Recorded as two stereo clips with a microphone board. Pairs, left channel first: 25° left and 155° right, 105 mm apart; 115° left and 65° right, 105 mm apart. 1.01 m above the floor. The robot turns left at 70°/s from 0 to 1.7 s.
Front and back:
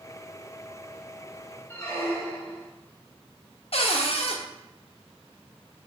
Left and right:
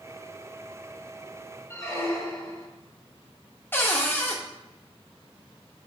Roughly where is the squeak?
Left.